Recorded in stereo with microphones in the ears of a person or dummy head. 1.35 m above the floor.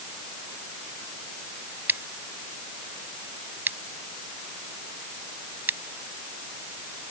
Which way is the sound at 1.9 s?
15° right (ahead or behind).